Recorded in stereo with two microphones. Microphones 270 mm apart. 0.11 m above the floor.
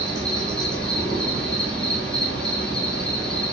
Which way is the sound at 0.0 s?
5° left (ahead or behind).